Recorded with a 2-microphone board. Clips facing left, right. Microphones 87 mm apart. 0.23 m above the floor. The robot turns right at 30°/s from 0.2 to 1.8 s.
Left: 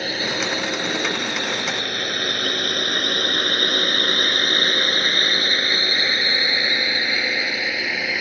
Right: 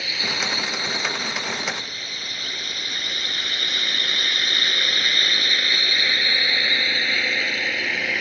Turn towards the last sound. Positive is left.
turn(degrees=5)  # may be behind; listen again after turning